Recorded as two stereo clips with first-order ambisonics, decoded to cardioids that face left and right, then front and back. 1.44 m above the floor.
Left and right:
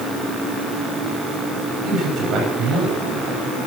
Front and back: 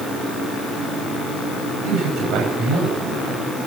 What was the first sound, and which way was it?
A man speaking, 135° right.